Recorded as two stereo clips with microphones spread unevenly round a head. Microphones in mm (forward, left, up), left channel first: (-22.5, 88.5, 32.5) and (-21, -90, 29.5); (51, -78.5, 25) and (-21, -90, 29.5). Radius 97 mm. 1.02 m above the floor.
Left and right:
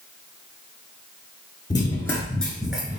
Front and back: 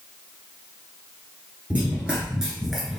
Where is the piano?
No piano in this recording.